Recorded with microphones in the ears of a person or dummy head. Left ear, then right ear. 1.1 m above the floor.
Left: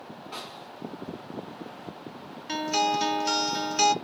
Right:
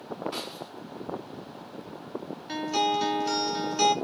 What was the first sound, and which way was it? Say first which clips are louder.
A snare drum: right 3 dB; 10° left (ahead or behind).